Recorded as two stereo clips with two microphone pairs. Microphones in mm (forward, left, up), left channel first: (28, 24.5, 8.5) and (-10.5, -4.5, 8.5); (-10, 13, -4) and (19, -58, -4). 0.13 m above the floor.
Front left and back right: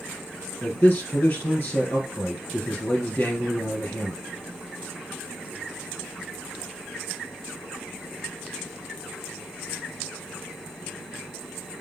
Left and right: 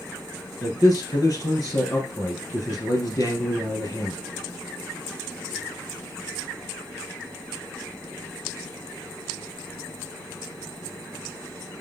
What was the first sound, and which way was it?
A man speaking, 80° left.